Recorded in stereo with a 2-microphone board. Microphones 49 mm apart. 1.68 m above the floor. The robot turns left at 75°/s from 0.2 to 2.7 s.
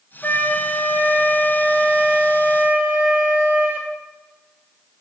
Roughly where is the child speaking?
I don't hear a child speaking.